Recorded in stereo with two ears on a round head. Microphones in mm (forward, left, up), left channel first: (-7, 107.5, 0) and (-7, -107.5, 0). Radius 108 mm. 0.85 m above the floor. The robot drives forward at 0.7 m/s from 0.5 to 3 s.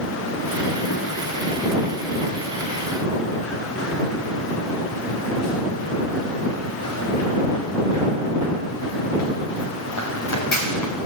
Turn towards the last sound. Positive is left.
turn(degrees=80)